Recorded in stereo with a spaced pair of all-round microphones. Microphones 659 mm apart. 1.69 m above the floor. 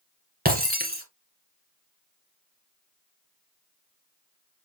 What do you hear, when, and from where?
0.5 s breaking glass: 15° right (ahead or behind), 1.7 m